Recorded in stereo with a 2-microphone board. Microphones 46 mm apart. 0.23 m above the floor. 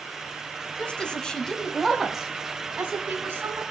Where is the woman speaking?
25° left (ahead or behind), 1.9 m; by 3.6 s 40° right (ahead or behind), 1.9 m.